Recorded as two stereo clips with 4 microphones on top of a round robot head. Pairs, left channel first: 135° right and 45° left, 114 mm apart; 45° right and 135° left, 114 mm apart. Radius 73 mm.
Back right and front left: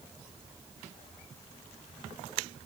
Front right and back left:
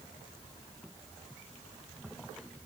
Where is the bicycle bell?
I don't hear a bicycle bell.